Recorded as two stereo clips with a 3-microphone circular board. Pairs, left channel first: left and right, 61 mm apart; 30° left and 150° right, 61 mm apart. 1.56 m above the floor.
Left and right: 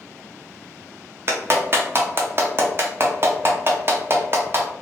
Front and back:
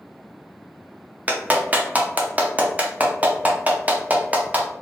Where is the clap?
100° right, 0.5 m.